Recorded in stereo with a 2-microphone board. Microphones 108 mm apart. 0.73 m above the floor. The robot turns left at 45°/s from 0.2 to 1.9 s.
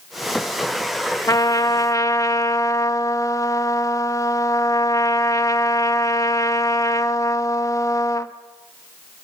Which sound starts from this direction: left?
A trumpet, at 1.3 s.